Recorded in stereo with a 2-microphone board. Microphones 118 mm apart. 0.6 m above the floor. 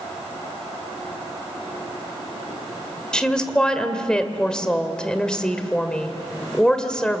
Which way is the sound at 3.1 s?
5° left (ahead or behind).